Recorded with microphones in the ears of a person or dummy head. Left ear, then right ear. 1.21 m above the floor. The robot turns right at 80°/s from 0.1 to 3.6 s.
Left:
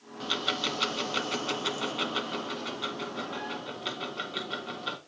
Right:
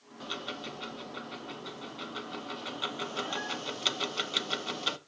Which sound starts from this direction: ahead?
Ticking, at 0.2 s.